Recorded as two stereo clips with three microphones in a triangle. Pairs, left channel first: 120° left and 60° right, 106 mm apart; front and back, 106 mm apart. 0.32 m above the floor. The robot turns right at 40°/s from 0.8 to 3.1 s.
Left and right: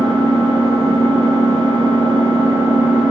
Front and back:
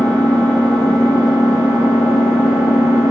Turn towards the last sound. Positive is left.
turn(degrees=25)